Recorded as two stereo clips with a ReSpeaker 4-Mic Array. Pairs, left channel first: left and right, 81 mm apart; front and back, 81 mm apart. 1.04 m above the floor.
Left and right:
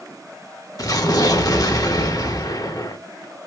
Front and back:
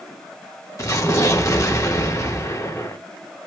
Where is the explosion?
50° left, 0.5 m.